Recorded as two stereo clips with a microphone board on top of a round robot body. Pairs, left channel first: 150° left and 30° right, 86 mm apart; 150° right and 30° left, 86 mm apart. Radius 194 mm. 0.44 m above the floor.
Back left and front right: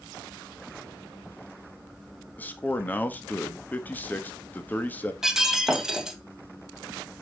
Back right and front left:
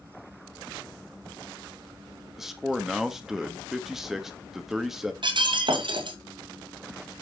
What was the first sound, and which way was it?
A man speaking, 110° left.